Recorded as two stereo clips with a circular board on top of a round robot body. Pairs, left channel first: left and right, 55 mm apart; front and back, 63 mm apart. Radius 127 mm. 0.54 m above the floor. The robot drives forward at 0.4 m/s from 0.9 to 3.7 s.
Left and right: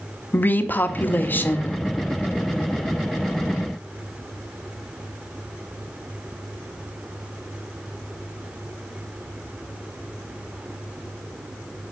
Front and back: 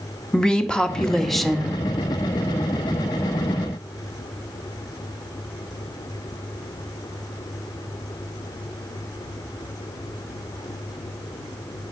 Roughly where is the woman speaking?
Left.